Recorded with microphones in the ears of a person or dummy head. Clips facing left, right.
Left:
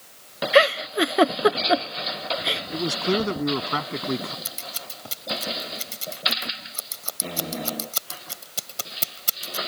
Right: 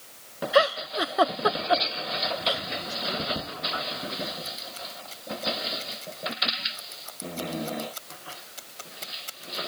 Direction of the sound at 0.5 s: 40° left (ahead or behind).